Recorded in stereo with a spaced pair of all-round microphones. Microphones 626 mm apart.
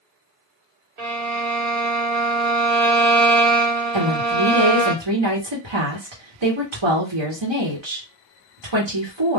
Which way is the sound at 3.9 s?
45° right (ahead or behind).